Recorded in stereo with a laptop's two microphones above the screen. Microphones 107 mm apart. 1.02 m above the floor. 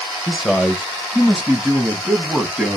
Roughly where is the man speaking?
Centre.